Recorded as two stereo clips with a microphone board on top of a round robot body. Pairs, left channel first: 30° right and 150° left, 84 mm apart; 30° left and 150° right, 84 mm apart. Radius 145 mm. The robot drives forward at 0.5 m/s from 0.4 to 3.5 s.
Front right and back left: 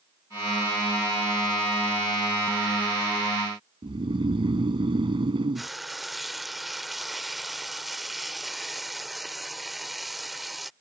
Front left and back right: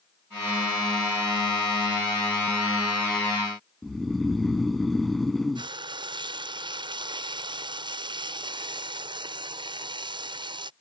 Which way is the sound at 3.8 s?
120° left.